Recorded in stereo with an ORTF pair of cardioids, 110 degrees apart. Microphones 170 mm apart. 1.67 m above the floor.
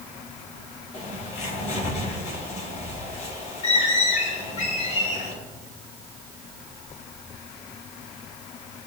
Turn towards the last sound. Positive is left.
turn(degrees=45)